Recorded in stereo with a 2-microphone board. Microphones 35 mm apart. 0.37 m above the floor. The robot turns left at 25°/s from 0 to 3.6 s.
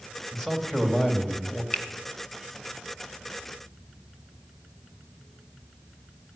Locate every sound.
0.3 s a man speaking: 175° left, 2.5 m; by 1.6 s 140° left, 2.5 m
1.7 s a finger snap: 30° left (ahead or behind), 1.2 m; by 1.9 s 35° left (ahead or behind), 1.2 m